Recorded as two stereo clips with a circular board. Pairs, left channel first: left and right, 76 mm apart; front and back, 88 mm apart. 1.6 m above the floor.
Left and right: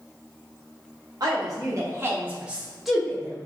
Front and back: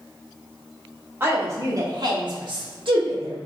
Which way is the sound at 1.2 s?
120° right.